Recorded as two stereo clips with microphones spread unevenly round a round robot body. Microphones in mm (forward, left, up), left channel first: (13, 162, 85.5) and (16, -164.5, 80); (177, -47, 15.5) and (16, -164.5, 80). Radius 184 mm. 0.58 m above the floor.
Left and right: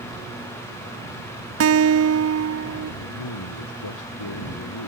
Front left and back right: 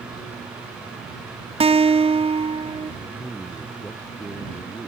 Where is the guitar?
70° right.